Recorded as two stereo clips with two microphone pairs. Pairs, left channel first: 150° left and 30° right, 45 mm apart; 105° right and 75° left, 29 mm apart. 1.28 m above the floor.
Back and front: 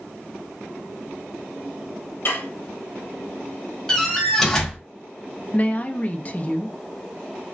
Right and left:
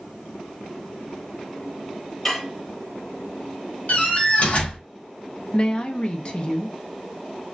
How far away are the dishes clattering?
About 0.9 m.